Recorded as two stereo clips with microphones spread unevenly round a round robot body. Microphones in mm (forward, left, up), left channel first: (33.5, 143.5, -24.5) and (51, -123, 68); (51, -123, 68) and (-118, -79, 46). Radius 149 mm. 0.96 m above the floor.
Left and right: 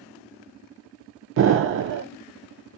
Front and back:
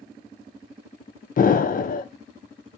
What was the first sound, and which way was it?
An explosion, 40° right.